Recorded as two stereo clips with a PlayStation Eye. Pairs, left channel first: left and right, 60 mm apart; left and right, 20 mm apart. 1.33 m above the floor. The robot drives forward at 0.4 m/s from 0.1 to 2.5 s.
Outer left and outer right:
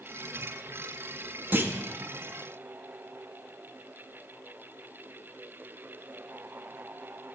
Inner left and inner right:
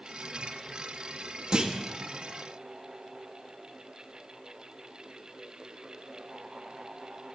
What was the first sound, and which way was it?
A clunk, 35° right (ahead or behind).